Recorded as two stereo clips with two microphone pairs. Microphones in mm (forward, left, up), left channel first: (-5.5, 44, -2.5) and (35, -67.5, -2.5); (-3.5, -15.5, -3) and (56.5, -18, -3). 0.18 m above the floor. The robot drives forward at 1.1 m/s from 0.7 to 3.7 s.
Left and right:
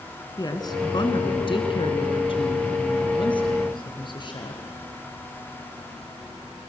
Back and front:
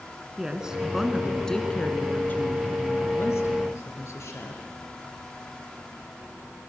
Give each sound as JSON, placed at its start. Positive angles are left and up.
{"t": 0.4, "sound": "a woman speaking", "azimuth_deg": 70, "distance_m": 2.0}